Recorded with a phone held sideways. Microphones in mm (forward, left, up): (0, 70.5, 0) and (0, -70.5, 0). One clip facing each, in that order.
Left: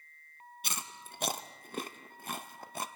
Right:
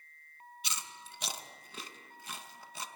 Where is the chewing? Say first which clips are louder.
Left 2 dB; 55° left (ahead or behind), 0.8 m.